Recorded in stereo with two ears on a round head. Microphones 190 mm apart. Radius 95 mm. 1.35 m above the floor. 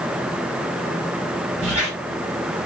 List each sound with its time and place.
1.6 s a squeak: 35° right (ahead or behind), 6 m